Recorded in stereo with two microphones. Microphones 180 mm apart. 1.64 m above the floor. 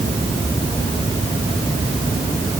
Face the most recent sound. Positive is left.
No sound to turn to.